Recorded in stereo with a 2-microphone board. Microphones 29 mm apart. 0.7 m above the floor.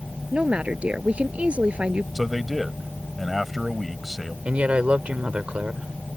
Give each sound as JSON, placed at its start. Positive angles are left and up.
{"t": 0.3, "sound": "a woman speaking", "side_deg": -45}
{"t": 2.1, "sound": "a man speaking", "side_deg": -5}
{"t": 4.5, "sound": "a woman speaking", "side_deg": -50}